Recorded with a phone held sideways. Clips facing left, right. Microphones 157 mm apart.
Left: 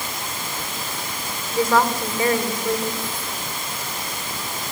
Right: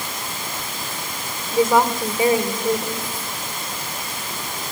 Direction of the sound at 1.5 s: 20° right (ahead or behind).